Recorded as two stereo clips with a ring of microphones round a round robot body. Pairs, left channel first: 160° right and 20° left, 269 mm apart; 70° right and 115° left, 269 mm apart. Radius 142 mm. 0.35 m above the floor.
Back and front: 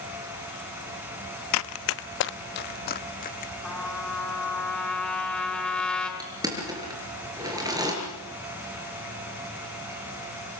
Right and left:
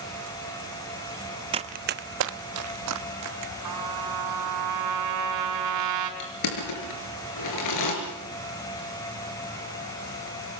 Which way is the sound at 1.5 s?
Straight behind.